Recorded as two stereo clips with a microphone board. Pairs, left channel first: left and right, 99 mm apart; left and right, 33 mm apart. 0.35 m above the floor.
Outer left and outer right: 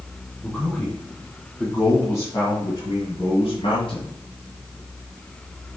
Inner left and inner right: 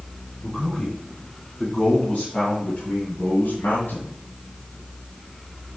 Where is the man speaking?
10° left (ahead or behind), 3.5 m; by 4.1 s 65° left (ahead or behind), 2 m.